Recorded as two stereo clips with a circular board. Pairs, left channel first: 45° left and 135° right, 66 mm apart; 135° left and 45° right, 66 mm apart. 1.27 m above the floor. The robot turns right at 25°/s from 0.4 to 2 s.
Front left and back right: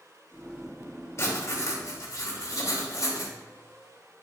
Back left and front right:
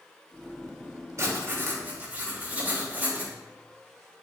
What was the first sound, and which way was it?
Writing, straight ahead.